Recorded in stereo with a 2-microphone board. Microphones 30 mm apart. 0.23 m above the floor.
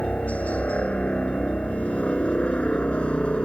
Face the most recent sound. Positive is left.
turn(degrees=35)  # may be behind; listen again after turning